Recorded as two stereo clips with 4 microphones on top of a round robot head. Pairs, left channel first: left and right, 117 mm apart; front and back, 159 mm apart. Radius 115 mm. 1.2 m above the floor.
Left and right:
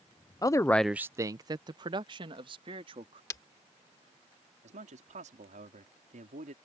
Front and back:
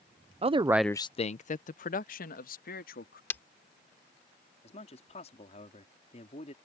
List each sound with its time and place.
0.4 s a man speaking: 140° left; by 3.2 s 35° right
3.3 s breaking glass: 55° left
4.6 s a man speaking: 60° right